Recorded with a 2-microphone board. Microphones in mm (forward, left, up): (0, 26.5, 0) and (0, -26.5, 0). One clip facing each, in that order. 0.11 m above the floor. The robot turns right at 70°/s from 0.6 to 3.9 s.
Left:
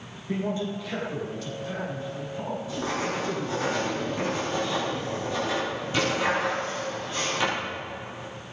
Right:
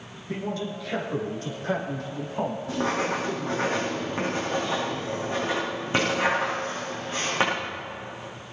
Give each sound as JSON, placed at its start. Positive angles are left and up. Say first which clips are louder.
{"t": 0.3, "sound": "a man speaking", "louder": "left 2 dB", "azimuth_deg": 160, "distance_m": 6.0}
{"t": 2.7, "sound": "writing", "louder": "right 2 dB", "azimuth_deg": -120, "distance_m": 6.5}